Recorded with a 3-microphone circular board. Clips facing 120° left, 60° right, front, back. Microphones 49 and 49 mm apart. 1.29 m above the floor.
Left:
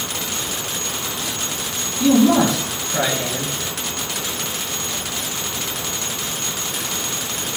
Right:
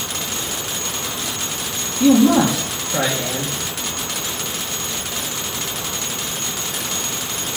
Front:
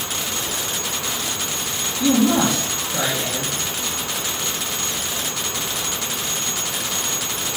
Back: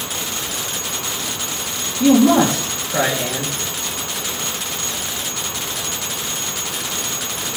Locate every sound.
2.0 s a man speaking: 130° right, 1.8 m